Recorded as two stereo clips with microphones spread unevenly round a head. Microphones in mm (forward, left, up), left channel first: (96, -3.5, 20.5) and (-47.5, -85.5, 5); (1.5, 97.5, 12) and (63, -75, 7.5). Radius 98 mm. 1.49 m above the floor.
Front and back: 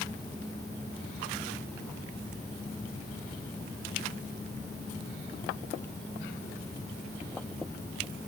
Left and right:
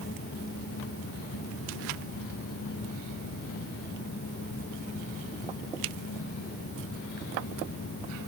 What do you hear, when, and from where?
Only background noise.